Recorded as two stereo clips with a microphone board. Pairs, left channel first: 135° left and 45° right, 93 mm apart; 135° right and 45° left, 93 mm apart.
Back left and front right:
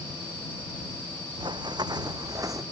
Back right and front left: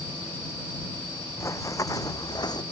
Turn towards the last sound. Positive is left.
turn(degrees=-95)